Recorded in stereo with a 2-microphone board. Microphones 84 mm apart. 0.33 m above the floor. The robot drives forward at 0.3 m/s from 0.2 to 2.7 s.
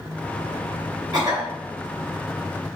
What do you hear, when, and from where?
1.1 s a cough: 50° right (ahead or behind), 1.9 m; by 1.5 s 55° right (ahead or behind), 1.9 m